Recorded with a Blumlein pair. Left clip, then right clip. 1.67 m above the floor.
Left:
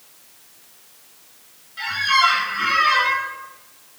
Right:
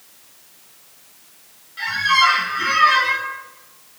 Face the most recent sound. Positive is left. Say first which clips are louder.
# right 1 dB
turn(degrees=0)